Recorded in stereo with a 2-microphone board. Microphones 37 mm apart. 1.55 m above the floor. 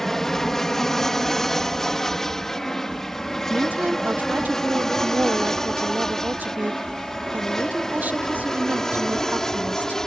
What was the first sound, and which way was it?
An aircraft, 10° left (ahead or behind).